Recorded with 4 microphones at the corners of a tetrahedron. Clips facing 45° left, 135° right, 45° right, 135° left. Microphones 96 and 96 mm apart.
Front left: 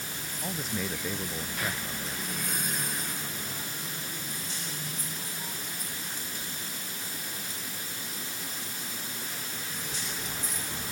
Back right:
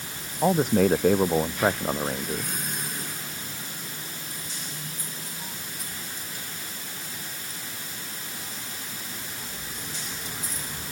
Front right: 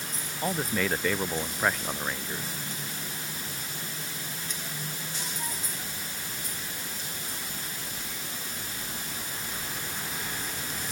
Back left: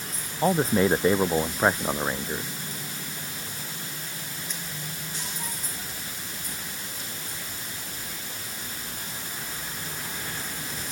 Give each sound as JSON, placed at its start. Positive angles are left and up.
{"t": 0.4, "sound": "a man speaking", "azimuth_deg": -165}